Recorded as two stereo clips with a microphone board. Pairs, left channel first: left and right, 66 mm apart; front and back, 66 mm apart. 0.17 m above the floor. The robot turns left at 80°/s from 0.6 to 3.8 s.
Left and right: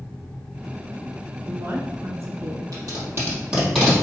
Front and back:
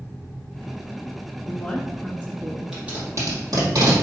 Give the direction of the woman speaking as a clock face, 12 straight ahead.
1 o'clock.